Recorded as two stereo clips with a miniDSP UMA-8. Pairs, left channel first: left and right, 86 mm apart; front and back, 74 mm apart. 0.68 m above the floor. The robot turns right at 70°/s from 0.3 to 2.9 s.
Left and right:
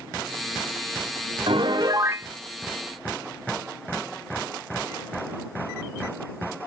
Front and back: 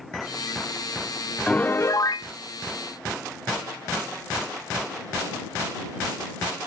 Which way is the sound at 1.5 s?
75° right.